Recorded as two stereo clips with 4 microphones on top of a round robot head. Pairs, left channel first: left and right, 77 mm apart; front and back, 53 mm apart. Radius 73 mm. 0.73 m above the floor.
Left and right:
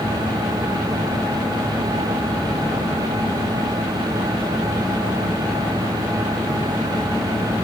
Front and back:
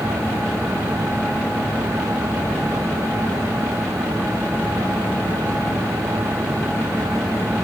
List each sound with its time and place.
Only background noise.